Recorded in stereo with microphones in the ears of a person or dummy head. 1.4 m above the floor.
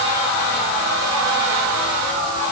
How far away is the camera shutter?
I don't hear a camera shutter.